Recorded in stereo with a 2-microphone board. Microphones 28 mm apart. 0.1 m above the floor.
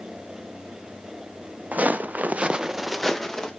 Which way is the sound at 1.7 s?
75° right (ahead or behind).